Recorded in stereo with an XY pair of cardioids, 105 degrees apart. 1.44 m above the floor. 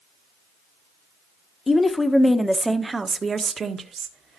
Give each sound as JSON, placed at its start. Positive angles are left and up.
{"t": 1.7, "sound": "a woman speaking", "azimuth_deg": 30, "distance_m": 1.0}